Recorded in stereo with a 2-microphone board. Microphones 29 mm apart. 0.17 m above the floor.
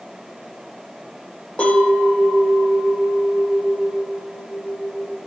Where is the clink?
35° left (ahead or behind), 3.5 m.